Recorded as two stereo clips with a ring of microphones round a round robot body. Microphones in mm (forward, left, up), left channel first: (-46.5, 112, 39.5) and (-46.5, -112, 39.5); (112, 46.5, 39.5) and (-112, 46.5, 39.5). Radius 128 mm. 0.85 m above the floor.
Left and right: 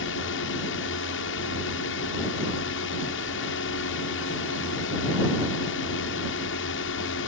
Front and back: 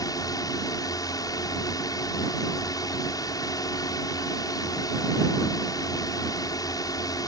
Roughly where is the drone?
Left.